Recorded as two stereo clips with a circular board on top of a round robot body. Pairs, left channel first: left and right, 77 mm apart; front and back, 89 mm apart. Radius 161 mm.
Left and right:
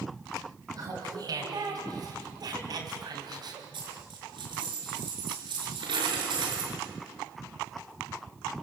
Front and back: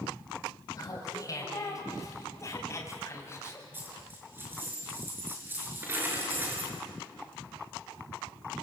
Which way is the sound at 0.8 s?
50° right.